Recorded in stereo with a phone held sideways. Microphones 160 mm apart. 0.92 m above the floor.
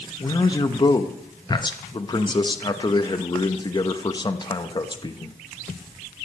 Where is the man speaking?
30° left (ahead or behind), 0.8 m.